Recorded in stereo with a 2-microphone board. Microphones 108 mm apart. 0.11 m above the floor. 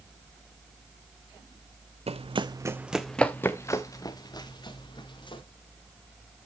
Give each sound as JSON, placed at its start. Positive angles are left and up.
{"t": 2.1, "sound": "running footsteps", "side_deg": -65, "distance_m": 0.6}